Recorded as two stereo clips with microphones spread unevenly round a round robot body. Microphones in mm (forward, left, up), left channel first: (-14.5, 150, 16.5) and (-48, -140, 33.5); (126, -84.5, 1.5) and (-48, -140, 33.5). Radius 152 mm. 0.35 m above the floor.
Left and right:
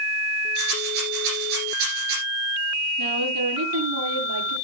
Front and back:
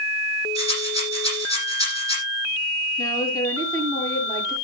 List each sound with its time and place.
0.6 s a rattle: 90° right, 9.5 m
3.0 s a woman speaking: 55° right, 7.5 m